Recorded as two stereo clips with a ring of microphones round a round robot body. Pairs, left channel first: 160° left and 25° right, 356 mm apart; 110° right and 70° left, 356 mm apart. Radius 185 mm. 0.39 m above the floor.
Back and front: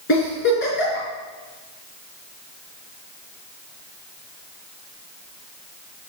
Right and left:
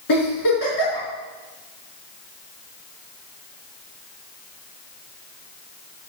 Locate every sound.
0.1 s a giggle: 145° right, 4.5 m